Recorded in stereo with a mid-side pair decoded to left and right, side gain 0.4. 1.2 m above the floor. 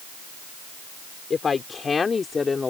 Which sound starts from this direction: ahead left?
A woman speaking, at 1.3 s.